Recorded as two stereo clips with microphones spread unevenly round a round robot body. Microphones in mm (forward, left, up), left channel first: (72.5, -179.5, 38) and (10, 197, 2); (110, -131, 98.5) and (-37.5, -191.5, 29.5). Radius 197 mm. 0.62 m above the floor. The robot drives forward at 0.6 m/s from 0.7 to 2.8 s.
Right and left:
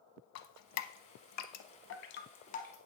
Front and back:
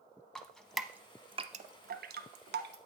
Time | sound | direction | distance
0.3 | dripping | 45° right | 0.7 m